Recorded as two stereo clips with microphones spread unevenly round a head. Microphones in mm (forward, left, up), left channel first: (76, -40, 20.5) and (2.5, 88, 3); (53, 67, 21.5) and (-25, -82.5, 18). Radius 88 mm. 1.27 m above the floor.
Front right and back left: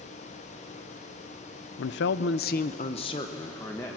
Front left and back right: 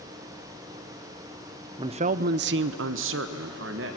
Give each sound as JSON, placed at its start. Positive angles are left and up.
{"t": 1.8, "sound": "a man speaking", "azimuth_deg": -55, "distance_m": 0.6}